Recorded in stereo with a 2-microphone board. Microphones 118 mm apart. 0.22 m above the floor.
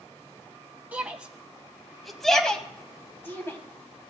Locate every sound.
0.9 s a shout: 15° right (ahead or behind), 1.6 m; by 3.6 s 25° left (ahead or behind), 1.2 m